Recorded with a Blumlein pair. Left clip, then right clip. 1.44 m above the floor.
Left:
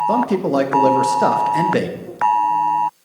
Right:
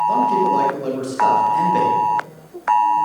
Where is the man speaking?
65° left, 1.6 m.